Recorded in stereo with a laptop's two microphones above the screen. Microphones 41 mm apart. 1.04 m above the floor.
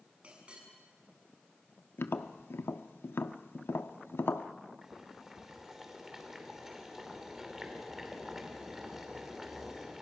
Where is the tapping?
75° left (ahead or behind), 1.1 m.